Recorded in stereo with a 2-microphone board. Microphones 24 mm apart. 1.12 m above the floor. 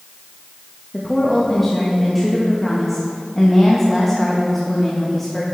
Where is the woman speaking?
10° left (ahead or behind), 1.1 m.